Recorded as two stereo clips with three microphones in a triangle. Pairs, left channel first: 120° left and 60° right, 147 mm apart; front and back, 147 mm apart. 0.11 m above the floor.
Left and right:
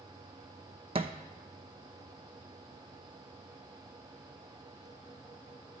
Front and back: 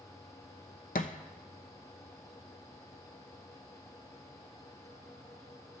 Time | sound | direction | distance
0.9 | a thud | 15° right | 0.6 m